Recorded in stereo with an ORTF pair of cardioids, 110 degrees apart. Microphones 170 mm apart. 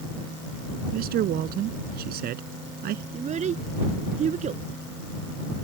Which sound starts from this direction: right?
A man speaking, at 0.9 s.